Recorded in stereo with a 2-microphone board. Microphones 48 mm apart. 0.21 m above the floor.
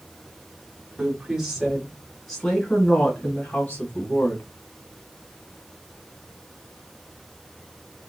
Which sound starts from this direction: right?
A woman speaking, at 1.0 s.